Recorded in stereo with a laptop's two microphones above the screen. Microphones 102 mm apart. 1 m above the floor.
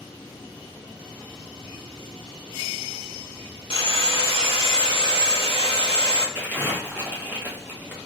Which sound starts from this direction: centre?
Crumpling, at 6.3 s.